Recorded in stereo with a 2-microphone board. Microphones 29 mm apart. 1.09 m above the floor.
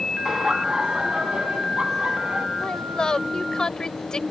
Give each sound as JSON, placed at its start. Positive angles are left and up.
{"t": 0.2, "sound": "laughter", "side_deg": -15}
{"t": 2.6, "sound": "a woman speaking", "side_deg": 25}